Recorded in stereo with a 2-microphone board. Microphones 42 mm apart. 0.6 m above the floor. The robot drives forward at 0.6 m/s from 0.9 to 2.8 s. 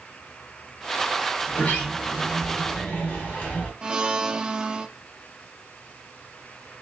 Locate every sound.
1.5 s a sliding door: 30° left (ahead or behind), 2 m; by 3.7 s 25° left (ahead or behind), 3 m
3.8 s a blender: 20° right (ahead or behind), 0.7 m